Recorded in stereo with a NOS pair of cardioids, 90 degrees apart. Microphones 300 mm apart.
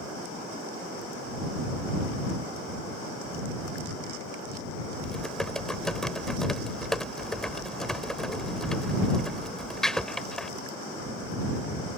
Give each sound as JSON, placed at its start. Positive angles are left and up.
{"t": 5.0, "sound": "typing on a keyboard", "azimuth_deg": 0}